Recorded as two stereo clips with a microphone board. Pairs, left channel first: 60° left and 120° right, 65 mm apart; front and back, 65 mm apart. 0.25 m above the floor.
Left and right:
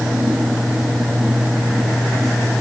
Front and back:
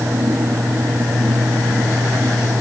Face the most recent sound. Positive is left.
No sound to turn to.